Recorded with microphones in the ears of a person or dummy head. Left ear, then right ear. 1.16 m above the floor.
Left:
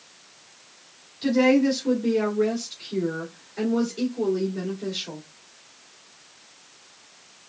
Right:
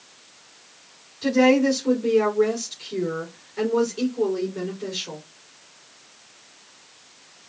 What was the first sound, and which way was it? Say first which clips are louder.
A woman speaking: right 2 dB; centre (ahead or behind).